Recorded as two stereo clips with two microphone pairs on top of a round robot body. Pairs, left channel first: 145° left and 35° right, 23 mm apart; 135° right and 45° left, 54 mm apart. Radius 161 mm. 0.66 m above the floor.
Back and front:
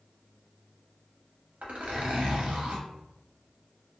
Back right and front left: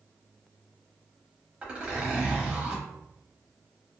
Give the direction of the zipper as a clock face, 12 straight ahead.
1 o'clock.